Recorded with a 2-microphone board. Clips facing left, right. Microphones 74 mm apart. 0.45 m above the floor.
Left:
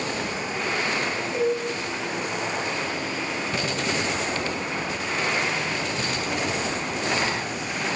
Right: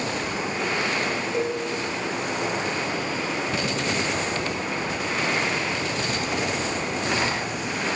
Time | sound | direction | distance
1.3 | dishes clattering | 10° right (ahead or behind) | 3.5 m